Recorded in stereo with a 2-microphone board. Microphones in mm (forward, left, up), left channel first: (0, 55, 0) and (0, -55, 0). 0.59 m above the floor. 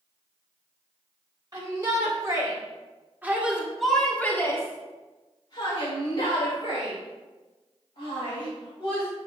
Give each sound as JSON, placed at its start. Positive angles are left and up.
{"t": 1.5, "sound": "a shout", "side_deg": -35, "distance_m": 3.0}